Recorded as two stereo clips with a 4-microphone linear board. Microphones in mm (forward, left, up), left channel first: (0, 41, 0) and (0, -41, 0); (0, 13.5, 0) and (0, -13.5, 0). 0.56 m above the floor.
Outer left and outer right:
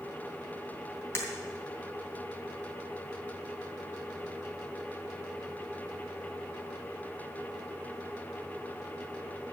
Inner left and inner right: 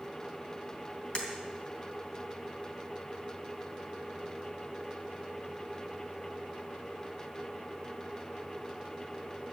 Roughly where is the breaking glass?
Left.